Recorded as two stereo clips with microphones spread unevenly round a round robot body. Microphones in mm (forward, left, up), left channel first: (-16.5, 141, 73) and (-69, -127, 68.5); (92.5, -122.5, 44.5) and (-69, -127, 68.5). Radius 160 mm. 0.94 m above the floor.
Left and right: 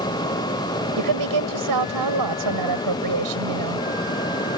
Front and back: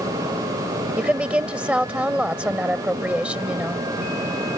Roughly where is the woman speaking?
Right.